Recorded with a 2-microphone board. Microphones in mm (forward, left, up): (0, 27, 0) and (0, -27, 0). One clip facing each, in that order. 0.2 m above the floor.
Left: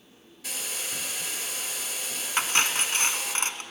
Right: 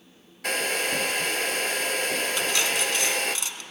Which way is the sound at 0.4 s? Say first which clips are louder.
Right 11 dB; 60° right (ahead or behind).